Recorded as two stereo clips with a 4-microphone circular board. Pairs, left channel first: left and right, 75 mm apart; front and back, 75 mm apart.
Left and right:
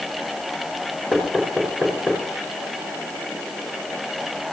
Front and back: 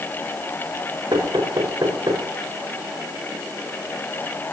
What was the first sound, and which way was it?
Knocking, 170° left.